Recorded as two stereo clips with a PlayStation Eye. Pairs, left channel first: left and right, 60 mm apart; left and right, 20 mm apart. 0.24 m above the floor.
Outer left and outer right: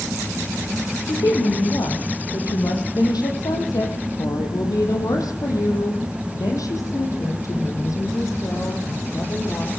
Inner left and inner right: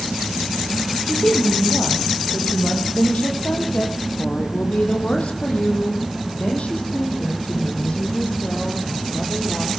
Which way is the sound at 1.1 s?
80° left.